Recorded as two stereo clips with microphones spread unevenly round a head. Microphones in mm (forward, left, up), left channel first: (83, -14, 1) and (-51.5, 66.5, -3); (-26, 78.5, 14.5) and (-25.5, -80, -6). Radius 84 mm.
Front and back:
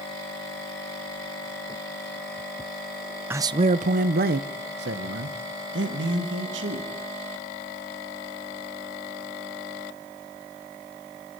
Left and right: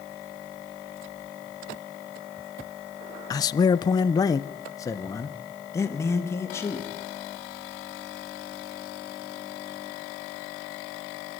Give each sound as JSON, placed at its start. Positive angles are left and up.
{"t": 3.3, "sound": "a man speaking", "azimuth_deg": 85, "distance_m": 0.6}